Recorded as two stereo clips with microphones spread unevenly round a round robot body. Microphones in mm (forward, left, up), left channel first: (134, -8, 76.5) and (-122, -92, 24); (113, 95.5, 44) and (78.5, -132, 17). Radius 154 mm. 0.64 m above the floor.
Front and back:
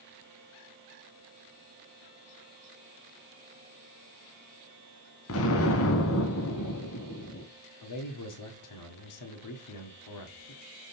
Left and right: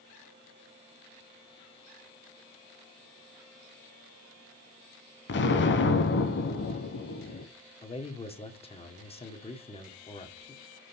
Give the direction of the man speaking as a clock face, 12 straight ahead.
12 o'clock.